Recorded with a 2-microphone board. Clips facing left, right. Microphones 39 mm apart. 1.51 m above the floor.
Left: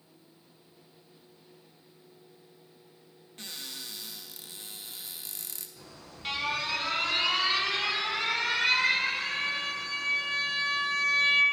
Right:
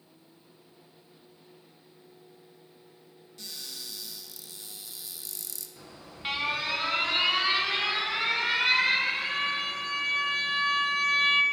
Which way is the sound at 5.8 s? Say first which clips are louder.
Right 5 dB; 20° right (ahead or behind).